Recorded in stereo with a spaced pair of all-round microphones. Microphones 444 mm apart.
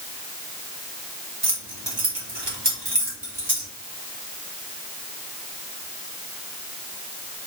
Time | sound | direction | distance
1.4 | keys jangling | 60° right (ahead or behind) | 1.6 m